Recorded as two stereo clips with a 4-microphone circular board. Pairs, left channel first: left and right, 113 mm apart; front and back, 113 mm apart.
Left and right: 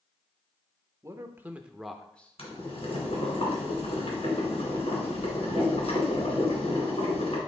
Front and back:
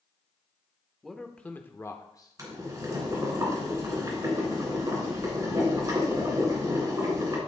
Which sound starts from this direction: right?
A man speaking, at 1.0 s.